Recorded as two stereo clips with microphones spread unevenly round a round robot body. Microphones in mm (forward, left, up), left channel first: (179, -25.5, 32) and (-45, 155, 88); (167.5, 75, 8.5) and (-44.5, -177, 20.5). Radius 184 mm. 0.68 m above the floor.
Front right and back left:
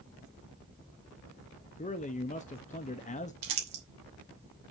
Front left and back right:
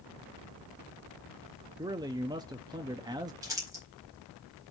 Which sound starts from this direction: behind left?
Crumpling, at 3.4 s.